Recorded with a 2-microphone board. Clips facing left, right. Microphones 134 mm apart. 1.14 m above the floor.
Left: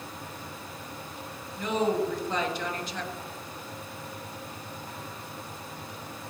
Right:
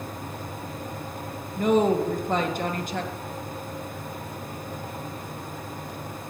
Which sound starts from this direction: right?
A woman speaking, at 1.6 s.